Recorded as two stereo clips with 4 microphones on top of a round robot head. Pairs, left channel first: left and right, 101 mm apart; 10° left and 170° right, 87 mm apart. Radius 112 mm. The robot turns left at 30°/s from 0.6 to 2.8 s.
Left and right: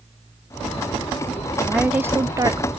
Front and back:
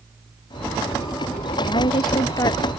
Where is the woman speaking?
10° right; by 2.7 s 40° right.